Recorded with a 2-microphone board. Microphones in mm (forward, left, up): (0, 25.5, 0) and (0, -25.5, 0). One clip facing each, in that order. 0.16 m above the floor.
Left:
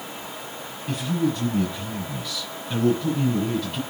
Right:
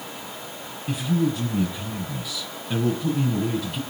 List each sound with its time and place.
0.9 s a man speaking: 10° right (ahead or behind), 5.5 m